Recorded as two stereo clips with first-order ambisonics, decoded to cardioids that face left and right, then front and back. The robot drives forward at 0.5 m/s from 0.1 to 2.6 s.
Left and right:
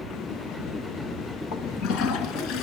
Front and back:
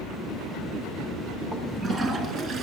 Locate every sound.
1.5 s a toilet flushing: 105° left, 1.4 m; by 2.6 s 125° left, 1.6 m